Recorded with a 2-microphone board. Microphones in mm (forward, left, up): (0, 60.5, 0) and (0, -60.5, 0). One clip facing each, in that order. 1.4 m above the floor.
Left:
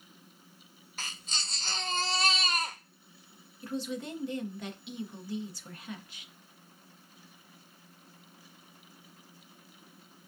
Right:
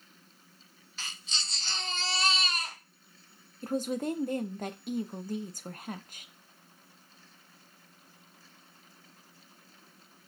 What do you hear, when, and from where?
1.0 s a baby crying: 45° left (ahead or behind), 0.9 m
3.6 s a woman speaking: 45° right (ahead or behind), 0.6 m